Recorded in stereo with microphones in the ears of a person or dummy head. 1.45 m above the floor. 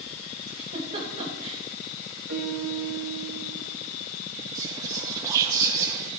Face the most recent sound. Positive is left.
turn(degrees=-20)  # may be behind; listen again after turning